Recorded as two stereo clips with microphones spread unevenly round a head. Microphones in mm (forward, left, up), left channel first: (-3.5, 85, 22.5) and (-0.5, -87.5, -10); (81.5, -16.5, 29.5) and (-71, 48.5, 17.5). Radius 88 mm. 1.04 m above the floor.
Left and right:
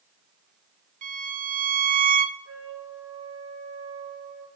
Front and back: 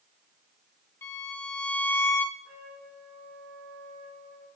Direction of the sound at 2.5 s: 160° left.